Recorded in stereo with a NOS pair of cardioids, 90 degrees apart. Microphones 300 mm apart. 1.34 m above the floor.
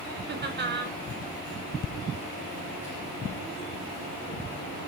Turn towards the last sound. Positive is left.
turn(degrees=-35)